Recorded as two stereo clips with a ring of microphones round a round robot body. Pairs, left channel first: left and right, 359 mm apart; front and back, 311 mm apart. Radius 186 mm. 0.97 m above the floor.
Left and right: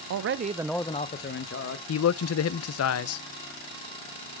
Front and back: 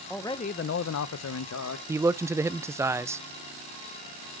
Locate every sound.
0.1 s a man speaking: 90° right, 0.6 m; by 1.8 s 40° left, 1.2 m
1.9 s a man speaking: 105° left, 0.5 m